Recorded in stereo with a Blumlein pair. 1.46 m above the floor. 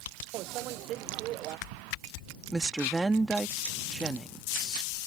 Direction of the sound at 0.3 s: 35° right.